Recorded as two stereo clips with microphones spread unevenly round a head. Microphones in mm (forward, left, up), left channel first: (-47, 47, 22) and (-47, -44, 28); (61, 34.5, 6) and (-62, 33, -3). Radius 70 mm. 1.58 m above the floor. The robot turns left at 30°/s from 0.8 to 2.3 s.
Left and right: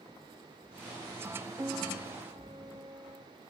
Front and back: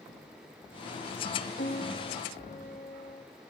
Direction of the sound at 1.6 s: 20° right.